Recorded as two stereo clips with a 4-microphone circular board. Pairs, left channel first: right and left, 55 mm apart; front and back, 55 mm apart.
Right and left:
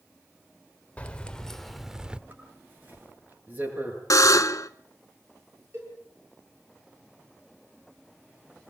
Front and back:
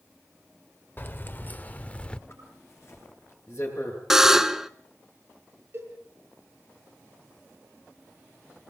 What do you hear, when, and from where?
1.0 s keys jangling: 35° right, 1.1 m; by 2.2 s 45° left, 0.8 m
2.3 s a zipper: 40° left, 8 m
4.1 s a buzzer: 95° right, 0.8 m
5.7 s a cowbell: 130° left, 9 m